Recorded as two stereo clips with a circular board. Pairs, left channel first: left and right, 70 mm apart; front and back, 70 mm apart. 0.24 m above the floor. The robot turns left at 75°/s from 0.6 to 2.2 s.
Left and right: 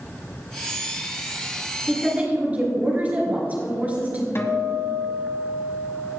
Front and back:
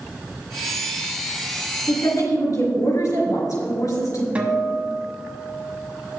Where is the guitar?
115° left, 1.5 m.